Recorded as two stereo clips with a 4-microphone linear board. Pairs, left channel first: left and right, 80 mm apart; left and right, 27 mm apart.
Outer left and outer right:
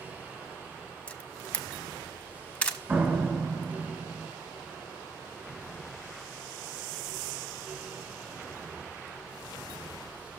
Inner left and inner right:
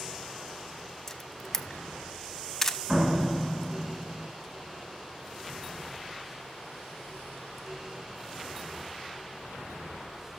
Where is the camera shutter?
15° left (ahead or behind), 0.7 m.